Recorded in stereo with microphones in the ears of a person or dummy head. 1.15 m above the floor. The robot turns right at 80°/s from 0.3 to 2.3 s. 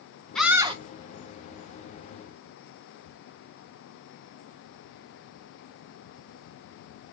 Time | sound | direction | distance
0.3 | a scream | straight behind | 1.0 m